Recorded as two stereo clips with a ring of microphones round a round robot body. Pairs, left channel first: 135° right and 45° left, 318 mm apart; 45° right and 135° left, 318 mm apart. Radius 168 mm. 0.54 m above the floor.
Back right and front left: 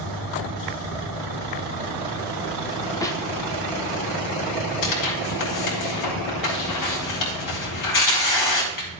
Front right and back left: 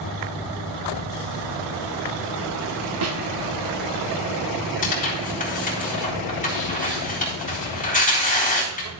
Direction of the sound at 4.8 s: 110° right.